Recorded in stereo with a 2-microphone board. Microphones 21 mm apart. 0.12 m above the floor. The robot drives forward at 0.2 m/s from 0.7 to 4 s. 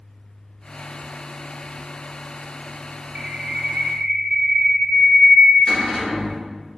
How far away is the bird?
About 0.5 m.